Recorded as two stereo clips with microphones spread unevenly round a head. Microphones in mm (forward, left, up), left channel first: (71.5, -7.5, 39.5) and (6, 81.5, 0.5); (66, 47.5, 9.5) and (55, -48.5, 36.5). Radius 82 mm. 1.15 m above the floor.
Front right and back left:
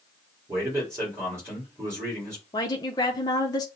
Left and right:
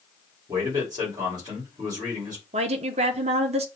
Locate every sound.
0.5 s a man speaking: 165° right, 2.5 m
2.5 s a woman speaking: 125° right, 0.6 m